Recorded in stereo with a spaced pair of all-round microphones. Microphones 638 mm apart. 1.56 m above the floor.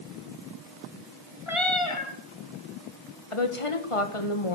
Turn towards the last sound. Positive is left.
turn(degrees=55)  # may be behind; listen again after turning